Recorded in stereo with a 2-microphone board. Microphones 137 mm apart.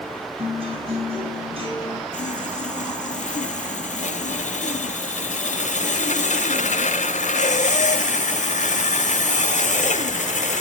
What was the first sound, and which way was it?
A guitar, 45° right (ahead or behind).